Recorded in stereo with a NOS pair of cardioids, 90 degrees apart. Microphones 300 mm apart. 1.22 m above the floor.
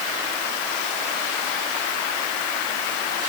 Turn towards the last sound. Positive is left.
No sound to turn to.